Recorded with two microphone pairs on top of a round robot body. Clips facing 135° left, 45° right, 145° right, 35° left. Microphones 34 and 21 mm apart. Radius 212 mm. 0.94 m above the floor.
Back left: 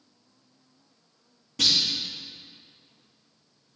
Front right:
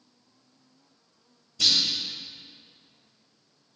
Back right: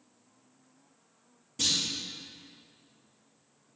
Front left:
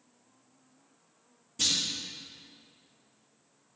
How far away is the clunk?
About 3 m.